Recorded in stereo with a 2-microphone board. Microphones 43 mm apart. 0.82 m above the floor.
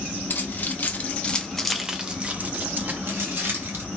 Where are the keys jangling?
55° left (ahead or behind), 0.9 m; by 3.8 s 70° right (ahead or behind), 1.2 m.